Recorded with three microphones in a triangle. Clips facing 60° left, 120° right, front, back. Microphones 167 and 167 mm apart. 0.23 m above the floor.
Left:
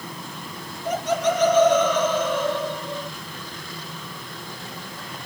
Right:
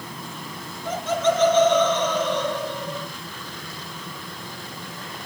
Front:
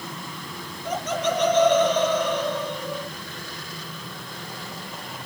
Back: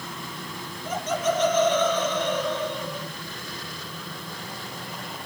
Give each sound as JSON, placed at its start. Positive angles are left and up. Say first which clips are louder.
{"t": 0.8, "sound": "laughter", "louder": "even, even", "azimuth_deg": -10, "distance_m": 6.0}